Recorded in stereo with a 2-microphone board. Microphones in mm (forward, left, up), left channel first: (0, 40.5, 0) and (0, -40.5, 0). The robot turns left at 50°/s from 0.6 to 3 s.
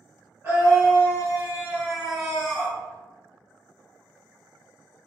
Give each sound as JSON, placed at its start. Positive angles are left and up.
{"t": 0.4, "sound": "a scream", "side_deg": -30, "distance_m": 1.1}